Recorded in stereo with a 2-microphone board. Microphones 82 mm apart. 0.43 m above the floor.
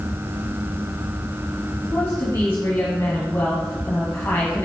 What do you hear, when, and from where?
1.9 s a woman speaking: 30° left (ahead or behind), 3 m